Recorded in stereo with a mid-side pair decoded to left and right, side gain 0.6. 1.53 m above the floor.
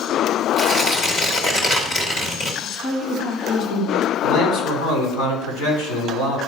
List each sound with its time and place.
0.6 s tearing paper: 35° left, 2.0 m
2.6 s a woman speaking: 60° left, 2.5 m
4.2 s a man speaking: 65° left, 4 m